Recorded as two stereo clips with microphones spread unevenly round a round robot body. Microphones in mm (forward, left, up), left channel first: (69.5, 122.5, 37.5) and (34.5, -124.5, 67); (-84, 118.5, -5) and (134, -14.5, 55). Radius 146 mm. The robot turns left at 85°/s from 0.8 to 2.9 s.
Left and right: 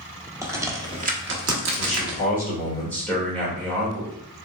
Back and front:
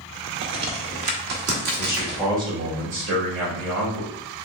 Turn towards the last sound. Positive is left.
turn(degrees=5)